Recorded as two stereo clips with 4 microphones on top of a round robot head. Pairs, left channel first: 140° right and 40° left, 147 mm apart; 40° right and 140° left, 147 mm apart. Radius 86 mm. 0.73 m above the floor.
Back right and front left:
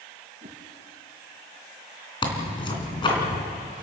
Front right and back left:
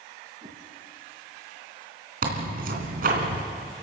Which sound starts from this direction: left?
A whoosh, at 0.4 s.